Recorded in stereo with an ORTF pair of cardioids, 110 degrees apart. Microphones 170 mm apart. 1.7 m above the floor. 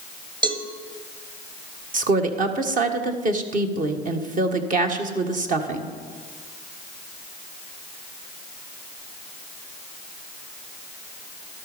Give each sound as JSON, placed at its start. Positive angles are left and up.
{"t": 0.4, "sound": "a cowbell", "azimuth_deg": -25, "distance_m": 1.7}
{"t": 1.9, "sound": "a woman speaking", "azimuth_deg": -45, "distance_m": 1.6}